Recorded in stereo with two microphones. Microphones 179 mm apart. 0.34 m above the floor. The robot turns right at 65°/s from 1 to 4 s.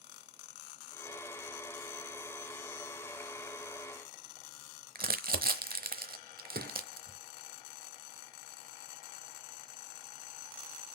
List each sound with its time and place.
5.0 s crumpling: 55° right (ahead or behind), 0.9 m
6.5 s a gunshot: 65° right (ahead or behind), 4 m